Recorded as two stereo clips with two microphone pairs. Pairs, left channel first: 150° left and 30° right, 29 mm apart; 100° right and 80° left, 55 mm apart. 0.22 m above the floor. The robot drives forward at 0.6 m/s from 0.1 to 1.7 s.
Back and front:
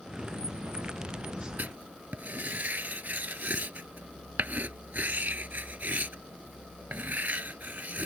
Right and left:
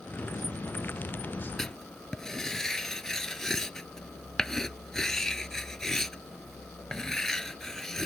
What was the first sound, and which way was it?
Writing, 15° right.